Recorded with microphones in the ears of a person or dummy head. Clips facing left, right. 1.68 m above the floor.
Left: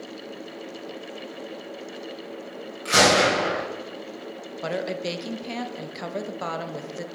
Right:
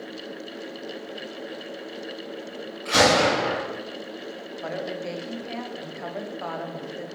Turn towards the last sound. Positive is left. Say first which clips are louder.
# left 3 dB
turn(degrees=40)  # may be behind; listen again after turning